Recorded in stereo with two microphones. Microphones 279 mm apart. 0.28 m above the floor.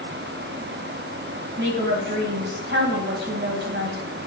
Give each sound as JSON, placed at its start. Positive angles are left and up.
{"t": 1.6, "sound": "a woman speaking", "side_deg": -40, "distance_m": 1.4}